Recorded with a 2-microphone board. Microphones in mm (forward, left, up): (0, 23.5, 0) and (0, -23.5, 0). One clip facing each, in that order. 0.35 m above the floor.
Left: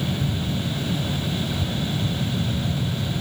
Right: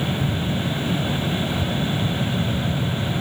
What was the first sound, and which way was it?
Only background noise.